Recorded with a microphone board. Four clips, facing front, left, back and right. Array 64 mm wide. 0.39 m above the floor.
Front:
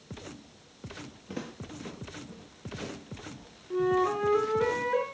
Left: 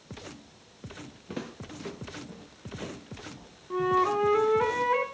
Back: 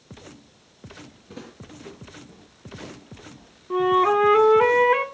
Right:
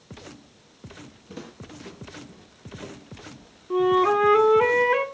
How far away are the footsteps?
About 3.5 m.